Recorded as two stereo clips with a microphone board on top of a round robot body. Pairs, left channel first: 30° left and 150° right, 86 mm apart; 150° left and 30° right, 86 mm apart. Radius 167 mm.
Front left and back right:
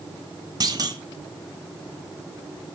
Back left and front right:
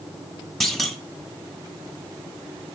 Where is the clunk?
125° right, 1.5 m.